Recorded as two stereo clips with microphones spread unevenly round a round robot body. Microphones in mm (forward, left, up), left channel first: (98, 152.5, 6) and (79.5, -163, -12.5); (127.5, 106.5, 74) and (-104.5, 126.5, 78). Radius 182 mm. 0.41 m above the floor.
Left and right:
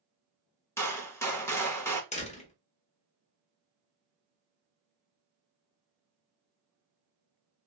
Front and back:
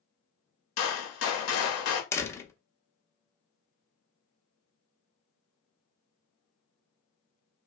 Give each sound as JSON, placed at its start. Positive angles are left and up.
{"t": 0.8, "sound": "a gunshot", "azimuth_deg": 5, "distance_m": 0.9}
{"t": 2.1, "sound": "a door slam", "azimuth_deg": 55, "distance_m": 0.6}